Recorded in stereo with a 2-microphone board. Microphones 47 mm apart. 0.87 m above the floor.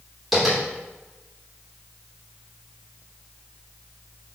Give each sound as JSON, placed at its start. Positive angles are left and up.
{"t": 0.3, "sound": "tapping", "side_deg": -5, "distance_m": 3.0}